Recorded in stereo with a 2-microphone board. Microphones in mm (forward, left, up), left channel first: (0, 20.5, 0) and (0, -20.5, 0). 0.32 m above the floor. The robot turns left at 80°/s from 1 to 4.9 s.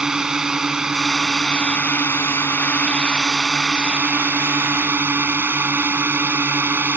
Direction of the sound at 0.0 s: 165° right.